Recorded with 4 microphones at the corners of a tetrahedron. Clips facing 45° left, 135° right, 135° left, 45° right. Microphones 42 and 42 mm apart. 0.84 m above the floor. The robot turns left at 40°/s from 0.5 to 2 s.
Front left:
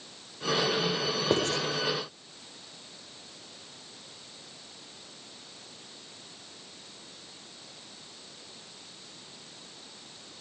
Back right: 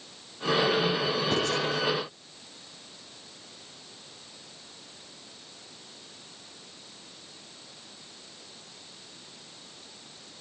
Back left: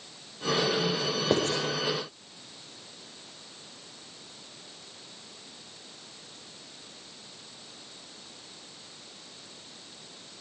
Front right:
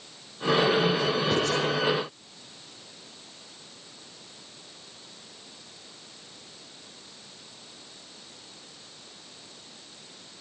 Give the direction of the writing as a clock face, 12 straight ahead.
9 o'clock.